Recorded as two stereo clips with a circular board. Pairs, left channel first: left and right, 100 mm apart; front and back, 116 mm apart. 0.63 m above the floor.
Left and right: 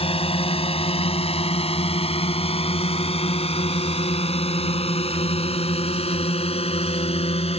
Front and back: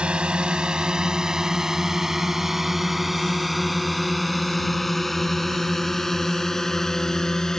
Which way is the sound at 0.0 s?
100° left.